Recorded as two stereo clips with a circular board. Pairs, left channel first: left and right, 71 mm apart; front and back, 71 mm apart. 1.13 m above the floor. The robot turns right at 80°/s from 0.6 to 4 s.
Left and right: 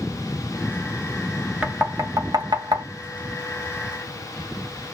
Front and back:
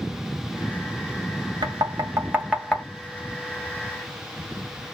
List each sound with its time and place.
1.6 s knocking: 170° right, 1.2 m; by 2.9 s 70° right, 1.2 m